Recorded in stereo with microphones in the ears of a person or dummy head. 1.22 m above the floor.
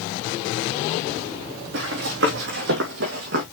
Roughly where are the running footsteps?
Right.